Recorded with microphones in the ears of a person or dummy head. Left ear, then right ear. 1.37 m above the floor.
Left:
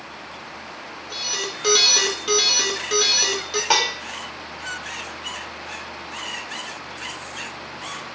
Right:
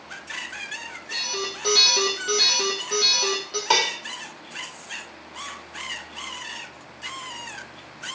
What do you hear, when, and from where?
1.1 s an alarm: 50° left (ahead or behind), 2.5 m
3.7 s dishes clattering: 15° left (ahead or behind), 2 m